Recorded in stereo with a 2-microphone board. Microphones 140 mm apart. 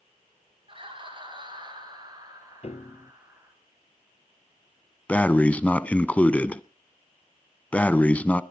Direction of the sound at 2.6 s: 50° left (ahead or behind).